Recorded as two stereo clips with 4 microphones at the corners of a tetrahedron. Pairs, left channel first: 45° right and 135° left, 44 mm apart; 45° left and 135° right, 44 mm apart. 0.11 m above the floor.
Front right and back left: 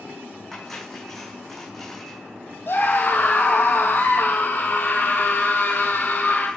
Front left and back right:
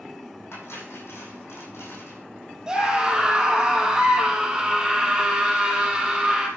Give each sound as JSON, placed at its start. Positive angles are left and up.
{"t": 0.5, "sound": "cutlery clinking", "azimuth_deg": 40, "distance_m": 4.0}
{"t": 2.7, "sound": "a scream", "azimuth_deg": -65, "distance_m": 3.5}